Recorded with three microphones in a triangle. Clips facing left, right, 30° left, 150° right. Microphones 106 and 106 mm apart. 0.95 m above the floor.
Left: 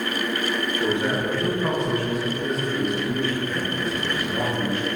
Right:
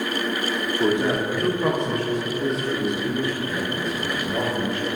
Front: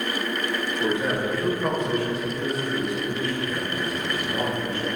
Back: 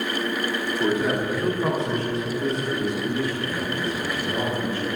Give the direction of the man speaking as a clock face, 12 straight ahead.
3 o'clock.